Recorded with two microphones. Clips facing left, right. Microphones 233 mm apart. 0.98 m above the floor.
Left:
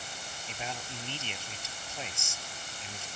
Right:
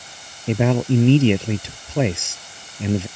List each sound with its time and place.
0.5 s a man speaking: 70° right (ahead or behind)